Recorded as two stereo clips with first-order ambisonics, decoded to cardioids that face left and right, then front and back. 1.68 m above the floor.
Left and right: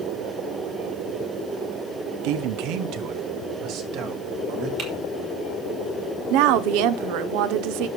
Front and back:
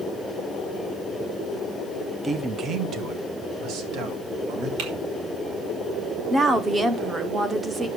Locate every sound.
2.2 s a man speaking: 100° right, 0.9 m; by 4.7 s 140° right, 3.5 m
4.8 s typing on a keyboard: 150° right, 4.5 m
6.3 s a woman speaking: 100° right, 1.1 m